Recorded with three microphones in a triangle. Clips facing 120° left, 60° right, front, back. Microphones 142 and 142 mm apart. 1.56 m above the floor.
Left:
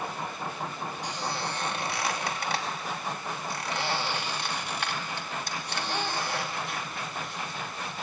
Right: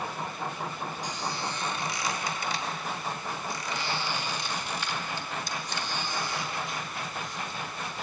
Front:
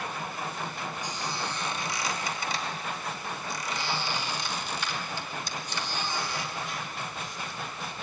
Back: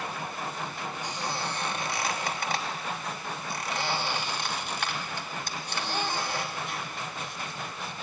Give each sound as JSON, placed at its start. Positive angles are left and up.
{"t": 1.0, "sound": "a squeak", "azimuth_deg": 150, "distance_m": 2.5}